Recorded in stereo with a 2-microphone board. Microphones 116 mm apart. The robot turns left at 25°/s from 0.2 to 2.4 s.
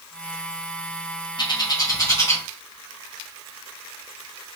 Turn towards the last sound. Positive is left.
turn(degrees=25)  # may be behind; listen again after turning